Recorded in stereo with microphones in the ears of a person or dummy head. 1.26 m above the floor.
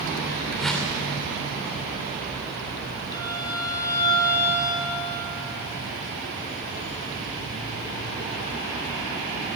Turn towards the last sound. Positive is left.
turn(degrees=25)  # may be behind; listen again after turning